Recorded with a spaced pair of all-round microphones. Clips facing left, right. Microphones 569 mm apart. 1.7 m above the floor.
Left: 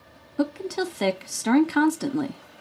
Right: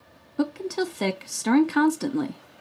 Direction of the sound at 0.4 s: Centre (ahead or behind).